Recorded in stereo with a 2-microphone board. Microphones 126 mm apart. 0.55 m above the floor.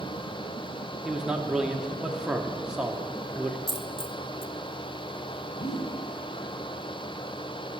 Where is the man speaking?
5° right (ahead or behind), 1.0 m.